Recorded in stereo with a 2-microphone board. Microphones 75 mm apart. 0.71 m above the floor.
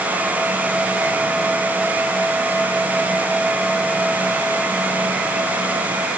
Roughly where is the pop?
No pop in this recording.